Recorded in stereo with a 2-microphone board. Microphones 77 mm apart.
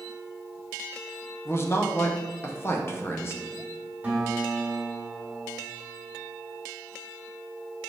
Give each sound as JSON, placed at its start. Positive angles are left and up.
{"t": 1.4, "sound": "a man speaking", "side_deg": 35, "distance_m": 0.5}
{"t": 4.0, "sound": "a guitar", "side_deg": -25, "distance_m": 1.4}